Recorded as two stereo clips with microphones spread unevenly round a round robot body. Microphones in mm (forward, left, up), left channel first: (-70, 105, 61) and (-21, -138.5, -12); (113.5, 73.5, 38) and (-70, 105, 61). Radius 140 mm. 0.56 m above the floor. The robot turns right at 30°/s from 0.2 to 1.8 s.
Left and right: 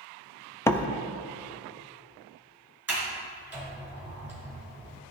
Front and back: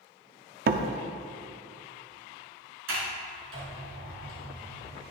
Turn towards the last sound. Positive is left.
turn(degrees=-165)